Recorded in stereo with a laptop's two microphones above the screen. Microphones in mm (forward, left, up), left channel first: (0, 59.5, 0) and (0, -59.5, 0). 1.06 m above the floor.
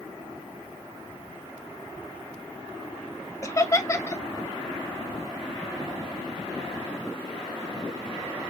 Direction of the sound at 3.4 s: 25° left (ahead or behind).